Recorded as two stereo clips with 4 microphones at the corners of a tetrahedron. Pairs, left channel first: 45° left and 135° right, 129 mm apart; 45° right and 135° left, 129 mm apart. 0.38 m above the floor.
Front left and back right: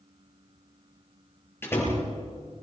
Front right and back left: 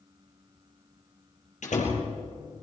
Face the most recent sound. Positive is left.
turn(degrees=-25)